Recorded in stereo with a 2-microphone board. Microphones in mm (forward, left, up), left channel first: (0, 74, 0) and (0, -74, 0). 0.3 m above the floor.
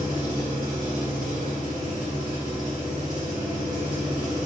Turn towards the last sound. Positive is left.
turn(degrees=-60)  # may be behind; listen again after turning